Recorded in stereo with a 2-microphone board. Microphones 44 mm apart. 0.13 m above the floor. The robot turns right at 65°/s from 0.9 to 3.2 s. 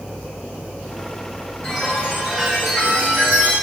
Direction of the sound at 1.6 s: 160° left.